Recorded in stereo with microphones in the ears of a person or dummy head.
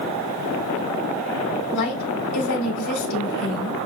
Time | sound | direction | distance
1.7 | a woman speaking | 80° left | 1.2 m